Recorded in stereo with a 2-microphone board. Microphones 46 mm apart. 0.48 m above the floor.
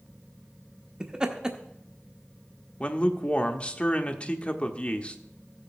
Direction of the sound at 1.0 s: 15° right (ahead or behind).